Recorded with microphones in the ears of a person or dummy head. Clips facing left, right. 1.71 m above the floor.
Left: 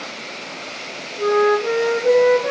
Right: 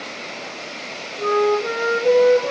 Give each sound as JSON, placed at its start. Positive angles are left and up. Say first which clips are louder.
{"t": 1.2, "sound": "a flute", "louder": "left 2 dB", "side_deg": 5, "distance_m": 1.3}